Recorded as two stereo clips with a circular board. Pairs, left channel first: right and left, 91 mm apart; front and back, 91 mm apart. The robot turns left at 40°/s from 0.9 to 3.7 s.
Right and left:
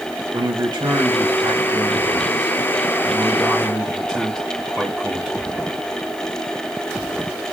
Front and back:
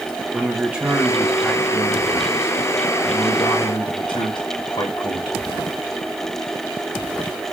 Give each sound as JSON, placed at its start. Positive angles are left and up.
{"t": 0.3, "sound": "a man speaking", "azimuth_deg": 110, "distance_m": 1.3}